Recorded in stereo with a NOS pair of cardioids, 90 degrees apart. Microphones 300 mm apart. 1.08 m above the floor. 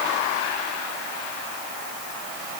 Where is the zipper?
No zipper in this recording.